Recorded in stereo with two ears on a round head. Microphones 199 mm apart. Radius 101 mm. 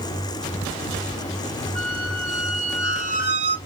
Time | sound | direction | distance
1.8 | a squeak | 50° right (ahead or behind) | 1.0 m